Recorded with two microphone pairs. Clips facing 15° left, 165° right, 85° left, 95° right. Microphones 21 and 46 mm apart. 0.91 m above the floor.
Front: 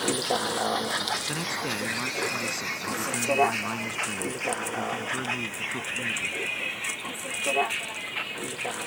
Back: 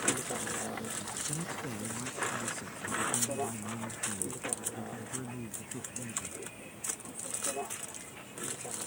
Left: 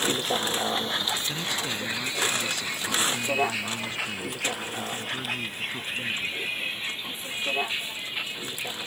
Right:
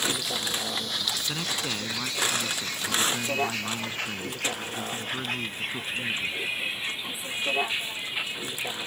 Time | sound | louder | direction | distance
0.0 | a vehicle | front 8 dB, left 3 dB | 30° left | ?
1.3 | a man speaking | front 9 dB, left 1 dB | 20° right | ?